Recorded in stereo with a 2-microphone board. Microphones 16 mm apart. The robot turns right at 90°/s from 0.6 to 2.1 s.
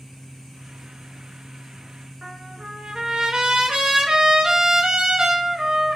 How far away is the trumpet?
About 0.8 m.